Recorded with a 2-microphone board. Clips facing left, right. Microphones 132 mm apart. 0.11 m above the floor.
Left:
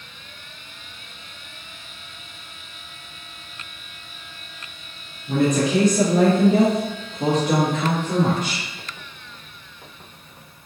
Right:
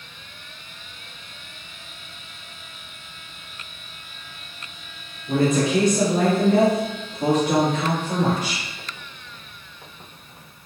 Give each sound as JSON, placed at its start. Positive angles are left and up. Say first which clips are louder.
{"t": 5.3, "sound": "a woman speaking", "louder": "even", "side_deg": -10, "distance_m": 1.5}